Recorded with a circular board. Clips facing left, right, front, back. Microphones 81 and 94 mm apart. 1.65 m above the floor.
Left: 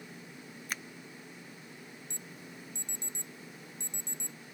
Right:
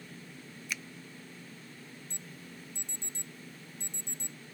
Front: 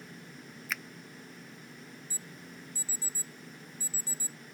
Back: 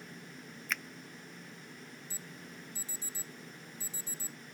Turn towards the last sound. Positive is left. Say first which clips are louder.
# left 1 dB, front 1 dB
turn(degrees=115)